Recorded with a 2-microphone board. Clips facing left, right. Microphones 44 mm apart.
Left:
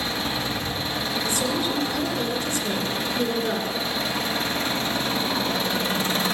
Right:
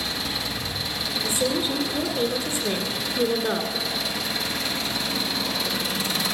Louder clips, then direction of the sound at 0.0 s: Left 2 dB; 40° left (ahead or behind).